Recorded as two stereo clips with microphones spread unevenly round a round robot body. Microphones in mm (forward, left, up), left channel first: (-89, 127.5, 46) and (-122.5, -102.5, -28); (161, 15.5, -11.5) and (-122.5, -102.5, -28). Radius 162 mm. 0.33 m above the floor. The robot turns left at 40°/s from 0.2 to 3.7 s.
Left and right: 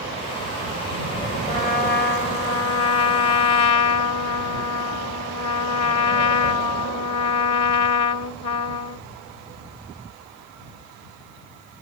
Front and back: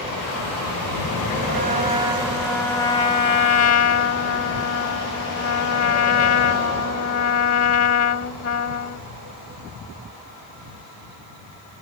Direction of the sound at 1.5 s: 150° left.